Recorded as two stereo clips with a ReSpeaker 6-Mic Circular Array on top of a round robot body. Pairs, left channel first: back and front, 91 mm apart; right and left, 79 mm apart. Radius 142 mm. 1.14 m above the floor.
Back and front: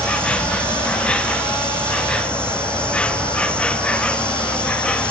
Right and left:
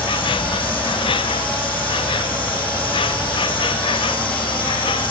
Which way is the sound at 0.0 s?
100° right.